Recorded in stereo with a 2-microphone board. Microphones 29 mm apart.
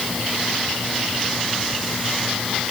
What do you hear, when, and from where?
Only background noise.